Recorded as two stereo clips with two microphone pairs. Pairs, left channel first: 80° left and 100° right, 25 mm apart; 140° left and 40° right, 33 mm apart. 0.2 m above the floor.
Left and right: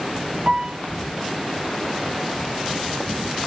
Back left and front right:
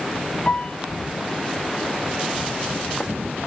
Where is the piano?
150° right, 0.7 m.